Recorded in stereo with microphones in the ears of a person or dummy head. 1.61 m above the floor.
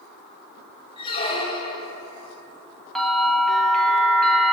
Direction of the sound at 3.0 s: Centre (ahead or behind).